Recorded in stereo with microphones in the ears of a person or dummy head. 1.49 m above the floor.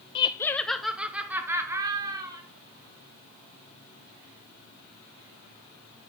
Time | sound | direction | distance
0.1 | laughter | 30° left (ahead or behind) | 0.5 m